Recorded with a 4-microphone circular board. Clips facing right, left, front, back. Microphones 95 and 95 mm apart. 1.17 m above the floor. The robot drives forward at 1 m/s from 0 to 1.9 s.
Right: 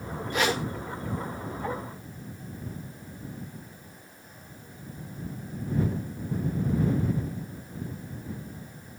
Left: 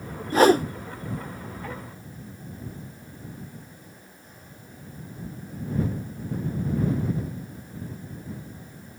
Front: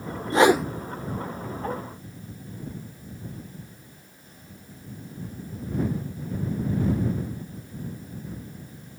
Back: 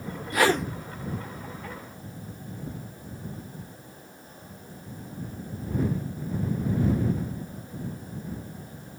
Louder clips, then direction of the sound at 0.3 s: Left 10 dB, front 5 dB; 50° left.